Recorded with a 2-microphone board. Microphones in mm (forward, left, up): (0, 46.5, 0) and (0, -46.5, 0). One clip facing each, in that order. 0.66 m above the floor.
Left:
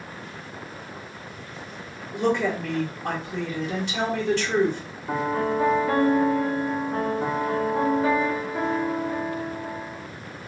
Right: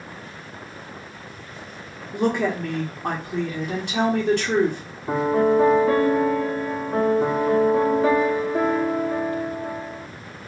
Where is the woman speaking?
60° right (ahead or behind), 1.4 m.